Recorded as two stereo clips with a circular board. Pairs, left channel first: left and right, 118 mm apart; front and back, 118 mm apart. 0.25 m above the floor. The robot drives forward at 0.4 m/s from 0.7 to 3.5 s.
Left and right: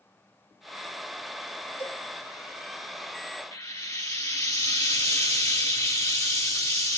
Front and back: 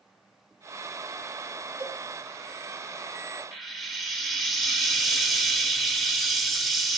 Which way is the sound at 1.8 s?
160° left.